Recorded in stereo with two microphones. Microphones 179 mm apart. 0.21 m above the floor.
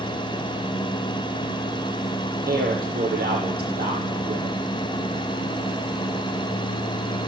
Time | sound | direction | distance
2.5 | a man speaking | 60° right (ahead or behind) | 7.5 m